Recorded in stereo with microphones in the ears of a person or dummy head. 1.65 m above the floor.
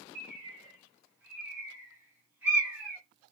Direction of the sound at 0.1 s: 10° right (ahead or behind).